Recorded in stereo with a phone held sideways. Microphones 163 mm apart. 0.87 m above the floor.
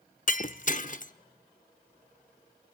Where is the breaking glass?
55° left (ahead or behind), 0.7 m.